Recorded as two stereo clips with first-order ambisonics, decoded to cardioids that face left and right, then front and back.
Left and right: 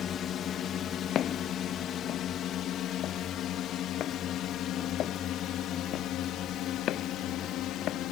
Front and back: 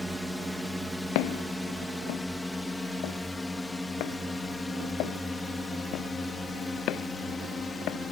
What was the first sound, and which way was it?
A drone, 90° left.